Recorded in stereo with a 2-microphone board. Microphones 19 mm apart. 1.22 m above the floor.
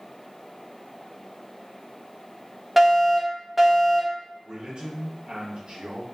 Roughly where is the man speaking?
Right.